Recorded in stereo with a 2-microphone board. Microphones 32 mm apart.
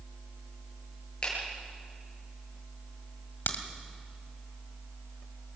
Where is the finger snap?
25° left (ahead or behind), 9 m.